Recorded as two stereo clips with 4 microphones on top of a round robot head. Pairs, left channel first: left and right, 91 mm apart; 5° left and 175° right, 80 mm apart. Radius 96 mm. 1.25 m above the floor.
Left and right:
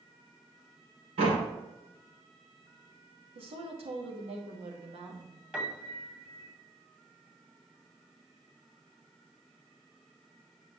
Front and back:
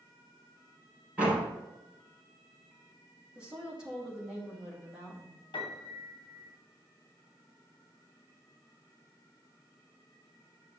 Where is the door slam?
100° right, 3.5 m.